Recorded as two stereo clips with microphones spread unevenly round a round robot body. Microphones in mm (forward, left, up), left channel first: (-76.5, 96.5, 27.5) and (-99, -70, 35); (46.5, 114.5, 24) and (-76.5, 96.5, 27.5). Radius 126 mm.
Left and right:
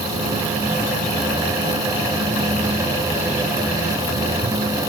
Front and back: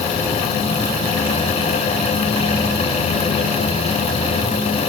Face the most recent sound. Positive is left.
No sound to turn to.